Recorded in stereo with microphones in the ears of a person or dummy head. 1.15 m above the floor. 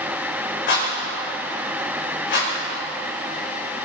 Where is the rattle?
55° left (ahead or behind), 6 m.